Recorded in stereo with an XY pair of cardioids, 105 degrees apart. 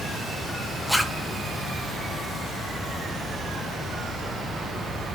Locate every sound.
0.9 s a zipper: 5° left, 2 m